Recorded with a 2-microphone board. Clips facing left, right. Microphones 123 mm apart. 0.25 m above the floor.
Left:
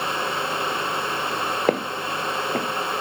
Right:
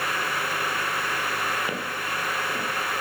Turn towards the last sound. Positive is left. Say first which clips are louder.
# left 8 dB
turn(degrees=55)  # may be behind; listen again after turning